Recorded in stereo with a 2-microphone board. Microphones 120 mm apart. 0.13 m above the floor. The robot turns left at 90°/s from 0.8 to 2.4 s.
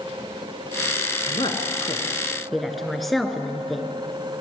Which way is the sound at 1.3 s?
40° left (ahead or behind).